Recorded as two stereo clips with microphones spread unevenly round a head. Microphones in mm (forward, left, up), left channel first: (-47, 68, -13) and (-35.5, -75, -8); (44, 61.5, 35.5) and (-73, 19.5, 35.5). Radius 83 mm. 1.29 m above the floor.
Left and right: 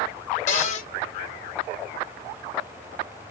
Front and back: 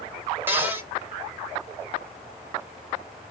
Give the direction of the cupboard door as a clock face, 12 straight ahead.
8 o'clock.